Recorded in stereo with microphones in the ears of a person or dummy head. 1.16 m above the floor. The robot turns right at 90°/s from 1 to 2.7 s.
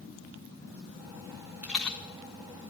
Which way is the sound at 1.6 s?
10° right (ahead or behind).